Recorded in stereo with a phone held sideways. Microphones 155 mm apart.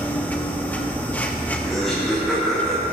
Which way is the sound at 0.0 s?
10° left (ahead or behind).